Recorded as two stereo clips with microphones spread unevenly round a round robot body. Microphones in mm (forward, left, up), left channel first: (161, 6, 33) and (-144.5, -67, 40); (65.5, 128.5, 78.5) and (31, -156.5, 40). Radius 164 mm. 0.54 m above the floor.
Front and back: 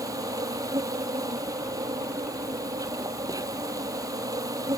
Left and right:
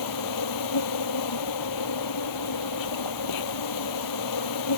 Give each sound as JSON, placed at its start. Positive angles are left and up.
{"t": 0.0, "sound": "an insect", "azimuth_deg": 115}